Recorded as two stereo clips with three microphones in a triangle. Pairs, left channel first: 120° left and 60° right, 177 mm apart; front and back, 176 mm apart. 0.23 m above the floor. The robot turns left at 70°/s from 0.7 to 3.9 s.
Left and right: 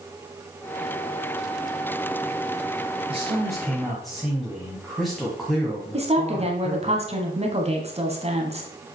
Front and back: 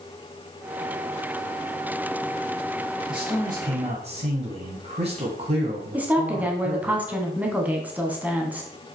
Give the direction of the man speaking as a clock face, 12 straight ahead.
3 o'clock.